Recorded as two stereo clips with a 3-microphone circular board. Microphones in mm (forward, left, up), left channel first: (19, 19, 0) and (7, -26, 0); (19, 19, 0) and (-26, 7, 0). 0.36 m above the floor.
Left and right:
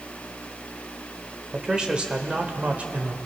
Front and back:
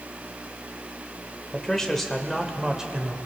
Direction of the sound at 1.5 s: 45° right.